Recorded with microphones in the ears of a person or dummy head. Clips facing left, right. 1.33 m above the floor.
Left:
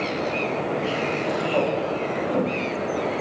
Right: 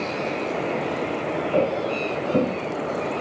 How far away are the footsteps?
About 4 m.